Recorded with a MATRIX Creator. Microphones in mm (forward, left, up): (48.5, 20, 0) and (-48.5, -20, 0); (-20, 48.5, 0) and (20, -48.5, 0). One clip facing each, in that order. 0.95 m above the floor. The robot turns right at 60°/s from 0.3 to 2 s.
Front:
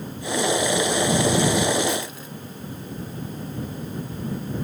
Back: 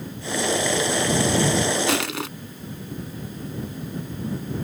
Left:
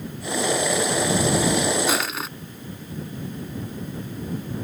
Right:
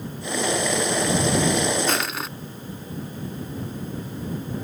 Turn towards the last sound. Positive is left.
turn(degrees=-160)